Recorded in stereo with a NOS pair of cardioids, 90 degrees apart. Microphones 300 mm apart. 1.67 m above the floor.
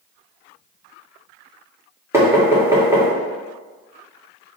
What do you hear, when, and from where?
2.1 s knocking: 10° right, 1.3 m